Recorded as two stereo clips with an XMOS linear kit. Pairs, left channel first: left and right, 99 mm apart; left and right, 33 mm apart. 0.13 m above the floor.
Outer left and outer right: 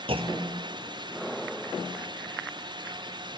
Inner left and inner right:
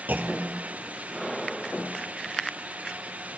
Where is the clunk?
70° right (ahead or behind), 1.0 m.